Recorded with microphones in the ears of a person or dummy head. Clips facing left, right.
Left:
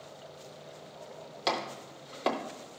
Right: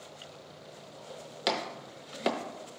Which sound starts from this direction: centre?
Chopping, at 1.5 s.